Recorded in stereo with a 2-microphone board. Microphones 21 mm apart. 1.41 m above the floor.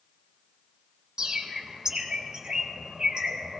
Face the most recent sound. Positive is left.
turn(degrees=-35)  # may be behind; listen again after turning